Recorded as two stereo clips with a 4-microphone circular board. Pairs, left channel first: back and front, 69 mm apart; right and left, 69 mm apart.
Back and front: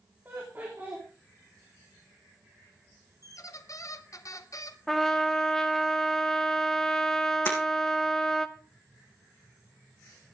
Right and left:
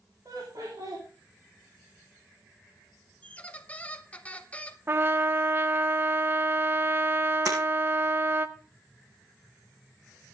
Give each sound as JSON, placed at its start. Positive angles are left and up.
{"t": 0.2, "sound": "laughter", "azimuth_deg": 60, "distance_m": 3.5}
{"t": 3.2, "sound": "a squeak", "azimuth_deg": -155, "distance_m": 0.9}
{"t": 4.9, "sound": "a trumpet", "azimuth_deg": 100, "distance_m": 0.8}
{"t": 7.5, "sound": "breaking glass", "azimuth_deg": 125, "distance_m": 4.0}